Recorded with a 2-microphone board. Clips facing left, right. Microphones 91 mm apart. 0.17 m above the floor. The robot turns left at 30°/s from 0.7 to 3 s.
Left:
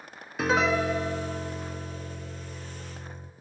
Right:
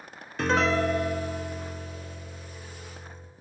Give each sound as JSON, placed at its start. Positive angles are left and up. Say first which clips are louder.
{"t": 0.4, "sound": "a piano", "louder": "even", "azimuth_deg": 175, "distance_m": 0.6}